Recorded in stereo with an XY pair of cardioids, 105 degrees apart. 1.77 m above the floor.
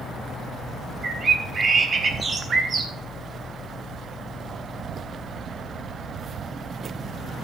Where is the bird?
40° right, 1.2 m.